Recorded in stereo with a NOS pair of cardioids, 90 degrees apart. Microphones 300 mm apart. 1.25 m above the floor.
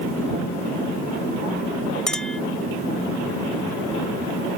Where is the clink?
Straight ahead.